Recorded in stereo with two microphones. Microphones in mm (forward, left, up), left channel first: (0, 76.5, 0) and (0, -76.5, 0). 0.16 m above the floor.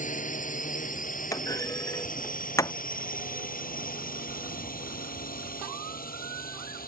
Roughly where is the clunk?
Left.